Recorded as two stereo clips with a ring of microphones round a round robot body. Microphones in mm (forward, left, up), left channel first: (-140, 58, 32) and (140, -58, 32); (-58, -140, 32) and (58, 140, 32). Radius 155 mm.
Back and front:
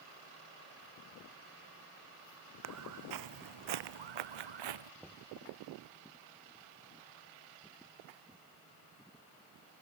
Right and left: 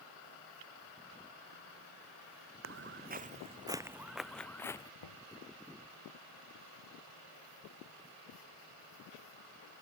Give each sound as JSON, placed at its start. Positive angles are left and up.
{"t": 2.6, "sound": "footsteps", "azimuth_deg": 20}
{"t": 5.0, "sound": "knocking", "azimuth_deg": -110}